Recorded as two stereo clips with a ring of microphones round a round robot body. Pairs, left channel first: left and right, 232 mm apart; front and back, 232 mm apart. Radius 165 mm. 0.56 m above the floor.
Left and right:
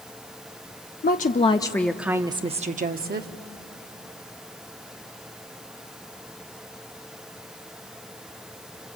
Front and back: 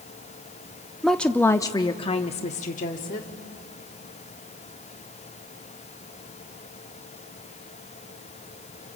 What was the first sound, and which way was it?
A woman speaking, 90° left.